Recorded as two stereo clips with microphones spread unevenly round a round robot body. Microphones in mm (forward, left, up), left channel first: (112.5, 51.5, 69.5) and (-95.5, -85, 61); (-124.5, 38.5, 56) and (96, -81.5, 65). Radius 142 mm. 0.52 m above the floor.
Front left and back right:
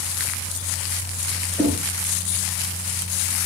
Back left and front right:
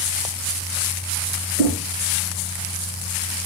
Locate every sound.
1.6 s knocking: 65° right, 6 m